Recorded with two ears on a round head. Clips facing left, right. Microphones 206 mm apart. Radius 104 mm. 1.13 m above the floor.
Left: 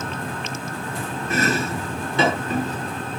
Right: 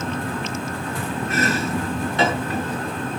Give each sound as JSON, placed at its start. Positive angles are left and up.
{"t": 1.3, "sound": "chopping", "side_deg": 85, "distance_m": 7.5}